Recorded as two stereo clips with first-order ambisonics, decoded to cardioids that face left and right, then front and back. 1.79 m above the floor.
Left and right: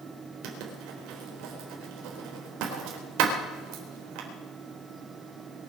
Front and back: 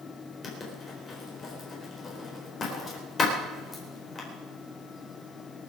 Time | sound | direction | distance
0.4 | writing | 70° right | 4 m